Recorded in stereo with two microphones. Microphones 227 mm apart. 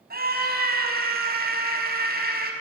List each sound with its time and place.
0.1 s a scream: 45° right (ahead or behind), 5.5 m